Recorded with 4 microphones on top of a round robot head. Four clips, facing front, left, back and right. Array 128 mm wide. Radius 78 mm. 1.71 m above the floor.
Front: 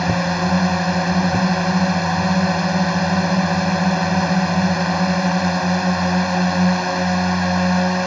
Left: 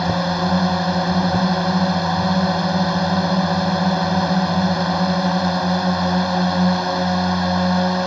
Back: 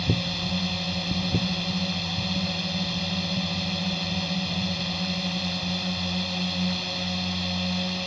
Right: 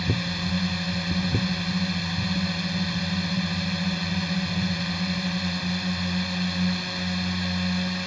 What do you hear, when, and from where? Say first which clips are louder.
0.0 s a drone: left 10 dB, front 10 dB; 50° left